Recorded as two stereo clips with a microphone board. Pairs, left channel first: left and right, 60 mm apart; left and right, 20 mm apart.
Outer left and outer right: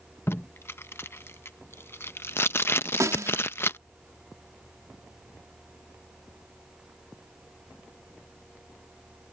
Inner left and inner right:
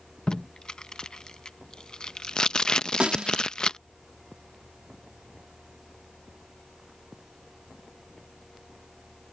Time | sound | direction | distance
0.3 | tape being pulled | 45° left (ahead or behind) | ?
3.0 | a snare drum | 65° right (ahead or behind) | ?